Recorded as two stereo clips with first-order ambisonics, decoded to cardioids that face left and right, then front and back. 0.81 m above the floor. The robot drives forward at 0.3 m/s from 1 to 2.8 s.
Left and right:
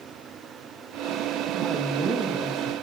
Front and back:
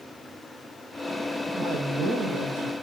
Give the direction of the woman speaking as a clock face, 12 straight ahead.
6 o'clock.